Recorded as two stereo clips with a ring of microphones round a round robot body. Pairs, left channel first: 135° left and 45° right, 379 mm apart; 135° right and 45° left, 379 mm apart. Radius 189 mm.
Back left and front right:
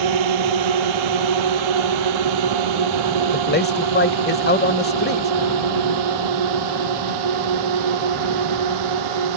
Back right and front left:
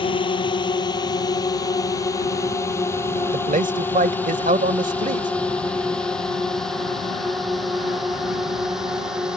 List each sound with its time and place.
0.0 s a drone: 60° right; by 9.4 s 45° right
3.3 s a man speaking: 95° left